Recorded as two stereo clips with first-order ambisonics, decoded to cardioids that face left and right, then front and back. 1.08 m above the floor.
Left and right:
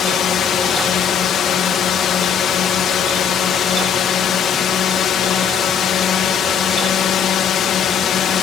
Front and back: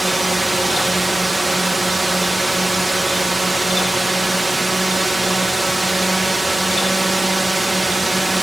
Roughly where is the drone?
Left.